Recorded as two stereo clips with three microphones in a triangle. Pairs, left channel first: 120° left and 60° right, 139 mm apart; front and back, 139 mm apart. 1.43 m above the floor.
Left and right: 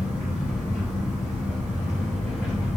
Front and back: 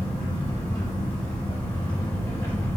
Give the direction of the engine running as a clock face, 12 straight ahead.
11 o'clock.